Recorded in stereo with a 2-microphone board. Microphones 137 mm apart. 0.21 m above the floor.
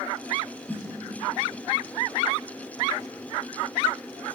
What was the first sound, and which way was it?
A snare drum, 10° left (ahead or behind).